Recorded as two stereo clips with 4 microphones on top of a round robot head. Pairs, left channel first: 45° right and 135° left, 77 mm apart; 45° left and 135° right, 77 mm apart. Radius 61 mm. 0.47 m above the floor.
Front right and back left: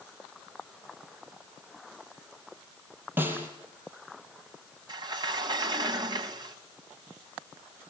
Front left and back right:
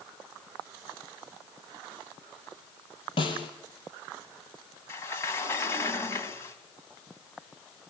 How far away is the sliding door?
About 2 m.